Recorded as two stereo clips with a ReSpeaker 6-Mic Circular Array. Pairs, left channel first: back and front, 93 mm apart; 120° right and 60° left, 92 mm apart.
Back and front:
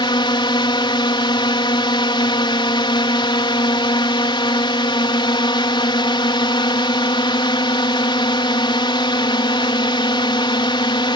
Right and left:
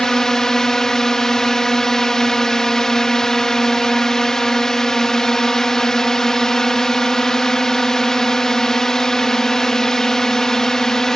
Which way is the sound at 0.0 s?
155° left.